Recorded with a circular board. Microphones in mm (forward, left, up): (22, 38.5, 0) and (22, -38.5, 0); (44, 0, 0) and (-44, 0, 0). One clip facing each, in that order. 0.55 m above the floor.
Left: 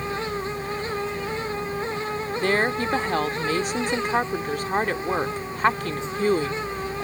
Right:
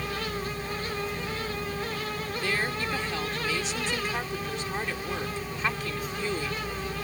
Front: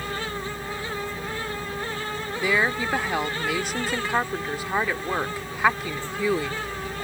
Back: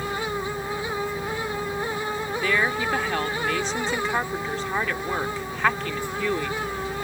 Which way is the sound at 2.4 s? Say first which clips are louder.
Left 8 dB, front 1 dB; 80° left.